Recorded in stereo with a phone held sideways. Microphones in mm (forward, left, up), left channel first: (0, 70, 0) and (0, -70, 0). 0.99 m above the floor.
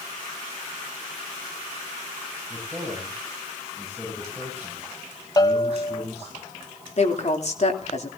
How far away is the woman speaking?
About 3 m.